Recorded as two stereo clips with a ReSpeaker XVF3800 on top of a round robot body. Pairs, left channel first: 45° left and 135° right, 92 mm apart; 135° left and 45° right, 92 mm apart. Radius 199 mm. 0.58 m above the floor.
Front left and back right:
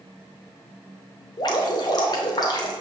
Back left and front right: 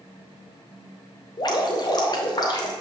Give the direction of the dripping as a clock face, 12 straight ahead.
9 o'clock.